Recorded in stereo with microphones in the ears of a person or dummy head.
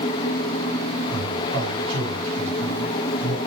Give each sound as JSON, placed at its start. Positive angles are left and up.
{"t": 1.1, "sound": "a man speaking", "side_deg": -70, "distance_m": 6.0}